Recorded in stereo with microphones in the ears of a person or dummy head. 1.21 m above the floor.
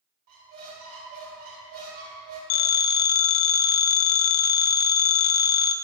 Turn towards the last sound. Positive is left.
turn(degrees=35)  # may be behind; listen again after turning